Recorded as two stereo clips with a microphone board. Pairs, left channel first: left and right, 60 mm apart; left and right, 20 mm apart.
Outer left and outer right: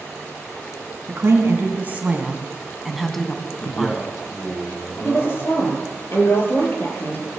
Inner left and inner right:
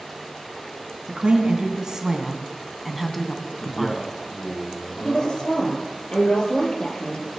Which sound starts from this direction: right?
A woman speaking, at 1.1 s.